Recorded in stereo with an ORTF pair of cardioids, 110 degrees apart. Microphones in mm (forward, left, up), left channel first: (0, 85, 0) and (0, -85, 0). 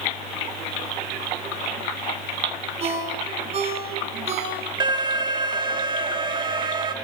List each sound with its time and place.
2.8 s a ringtone: 35° right, 8 m
4.8 s an alarm: 25° right, 2 m